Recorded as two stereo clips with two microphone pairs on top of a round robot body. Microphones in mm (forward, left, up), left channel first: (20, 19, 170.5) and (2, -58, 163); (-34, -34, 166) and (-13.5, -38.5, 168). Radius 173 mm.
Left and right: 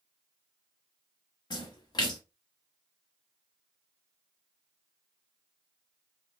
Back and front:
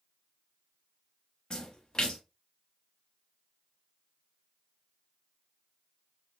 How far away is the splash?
About 0.9 m.